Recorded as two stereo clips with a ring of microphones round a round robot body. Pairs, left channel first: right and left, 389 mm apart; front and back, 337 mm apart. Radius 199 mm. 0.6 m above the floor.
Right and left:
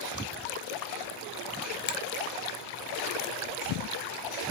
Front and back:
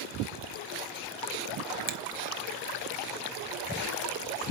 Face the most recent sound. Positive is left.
turn(degrees=-135)